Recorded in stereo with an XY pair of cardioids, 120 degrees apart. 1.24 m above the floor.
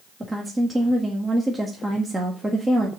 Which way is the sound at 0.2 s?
10° right.